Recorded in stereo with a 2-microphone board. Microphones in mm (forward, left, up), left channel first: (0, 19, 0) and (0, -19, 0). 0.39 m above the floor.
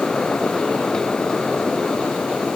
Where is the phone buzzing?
No phone buzzing in this recording.